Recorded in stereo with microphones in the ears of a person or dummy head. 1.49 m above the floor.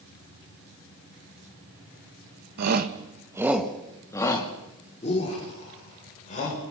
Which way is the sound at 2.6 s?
60° right (ahead or behind).